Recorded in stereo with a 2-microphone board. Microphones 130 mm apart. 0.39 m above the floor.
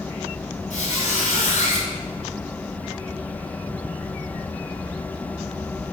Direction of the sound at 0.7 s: 70° left (ahead or behind).